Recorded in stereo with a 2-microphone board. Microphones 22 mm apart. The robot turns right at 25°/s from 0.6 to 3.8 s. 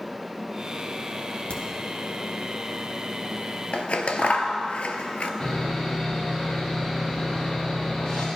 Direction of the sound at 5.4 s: 50° left (ahead or behind).